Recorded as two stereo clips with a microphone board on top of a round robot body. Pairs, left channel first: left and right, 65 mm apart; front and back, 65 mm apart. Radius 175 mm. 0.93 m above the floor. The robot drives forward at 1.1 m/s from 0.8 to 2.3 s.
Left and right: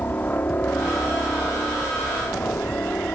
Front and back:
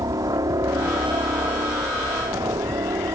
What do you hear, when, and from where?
0.0 s a helicopter: 155° left